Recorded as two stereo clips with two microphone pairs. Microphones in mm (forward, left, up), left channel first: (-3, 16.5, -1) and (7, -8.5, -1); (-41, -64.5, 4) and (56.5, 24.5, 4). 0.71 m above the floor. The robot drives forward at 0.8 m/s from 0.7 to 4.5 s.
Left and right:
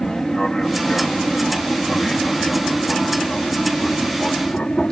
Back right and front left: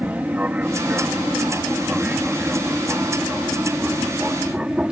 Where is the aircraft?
100° left; by 4.9 s 120° left.